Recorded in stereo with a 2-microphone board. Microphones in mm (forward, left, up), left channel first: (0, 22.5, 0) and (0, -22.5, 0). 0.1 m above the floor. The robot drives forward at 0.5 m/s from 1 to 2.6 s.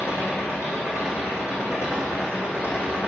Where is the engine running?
75° left (ahead or behind), 3.5 m; by 3.1 s 70° left (ahead or behind), 4 m.